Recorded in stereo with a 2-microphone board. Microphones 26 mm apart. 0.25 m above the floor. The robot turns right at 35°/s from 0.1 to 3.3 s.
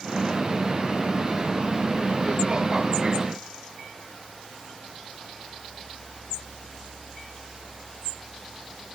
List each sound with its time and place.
Only background noise.